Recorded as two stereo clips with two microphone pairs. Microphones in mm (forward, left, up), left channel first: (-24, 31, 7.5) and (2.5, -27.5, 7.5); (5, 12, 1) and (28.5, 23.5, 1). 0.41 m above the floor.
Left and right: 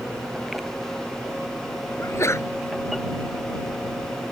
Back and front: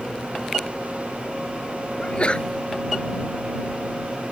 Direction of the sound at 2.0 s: 155° left.